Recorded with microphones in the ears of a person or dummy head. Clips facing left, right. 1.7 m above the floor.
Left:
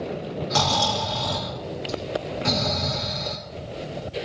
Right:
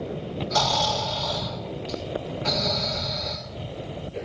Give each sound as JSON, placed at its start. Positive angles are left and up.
{"t": 0.5, "sound": "snoring", "side_deg": 45, "distance_m": 3.5}